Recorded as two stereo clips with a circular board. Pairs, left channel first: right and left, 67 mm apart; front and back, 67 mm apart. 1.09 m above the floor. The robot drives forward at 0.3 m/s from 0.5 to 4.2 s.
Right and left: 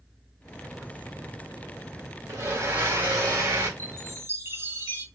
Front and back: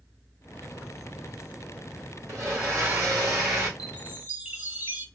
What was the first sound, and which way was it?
A blender, 140° left.